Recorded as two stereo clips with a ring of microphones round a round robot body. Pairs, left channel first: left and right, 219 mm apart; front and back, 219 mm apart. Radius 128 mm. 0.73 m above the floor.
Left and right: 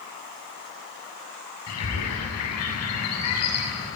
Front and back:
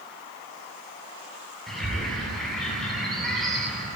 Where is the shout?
No shout in this recording.